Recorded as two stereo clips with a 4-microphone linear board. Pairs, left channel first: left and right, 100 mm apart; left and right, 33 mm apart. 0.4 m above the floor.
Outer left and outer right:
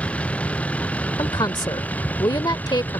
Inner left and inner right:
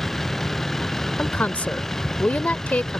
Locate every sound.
0.0 s a vehicle: 10° left (ahead or behind); by 3.0 s 15° left (ahead or behind)
1.2 s a woman speaking: 45° left (ahead or behind)